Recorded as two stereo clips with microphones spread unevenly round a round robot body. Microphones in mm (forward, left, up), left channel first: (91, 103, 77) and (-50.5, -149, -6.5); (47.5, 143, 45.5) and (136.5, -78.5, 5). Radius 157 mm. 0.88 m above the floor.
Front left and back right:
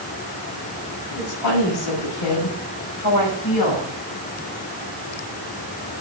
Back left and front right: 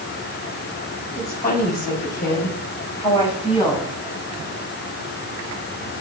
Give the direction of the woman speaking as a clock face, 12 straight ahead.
10 o'clock.